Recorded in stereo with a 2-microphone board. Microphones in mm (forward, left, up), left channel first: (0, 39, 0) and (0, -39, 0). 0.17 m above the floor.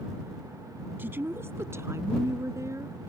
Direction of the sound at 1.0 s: 30° right (ahead or behind).